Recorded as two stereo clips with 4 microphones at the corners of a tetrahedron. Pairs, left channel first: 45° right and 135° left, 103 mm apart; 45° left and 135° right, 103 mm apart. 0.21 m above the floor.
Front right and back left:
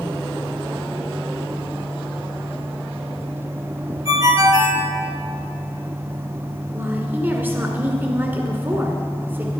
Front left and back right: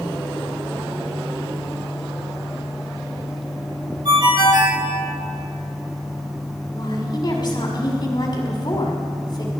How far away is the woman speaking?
About 1.8 m.